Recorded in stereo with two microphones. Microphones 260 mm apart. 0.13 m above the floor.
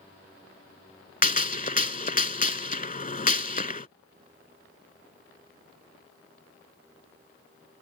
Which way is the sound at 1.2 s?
30° left (ahead or behind).